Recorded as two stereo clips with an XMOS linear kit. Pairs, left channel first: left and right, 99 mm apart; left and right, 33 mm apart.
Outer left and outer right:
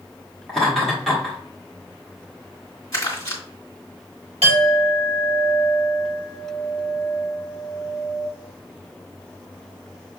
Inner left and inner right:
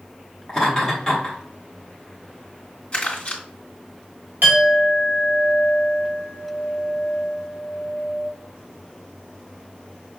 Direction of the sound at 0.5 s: 5° left (ahead or behind).